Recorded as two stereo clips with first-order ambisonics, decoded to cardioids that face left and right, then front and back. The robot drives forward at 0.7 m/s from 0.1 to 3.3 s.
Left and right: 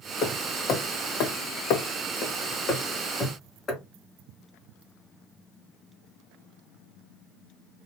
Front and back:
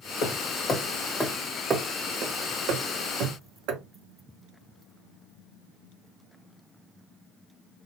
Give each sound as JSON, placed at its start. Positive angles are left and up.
{"t": 0.2, "sound": "hammering", "azimuth_deg": 45, "distance_m": 1.2}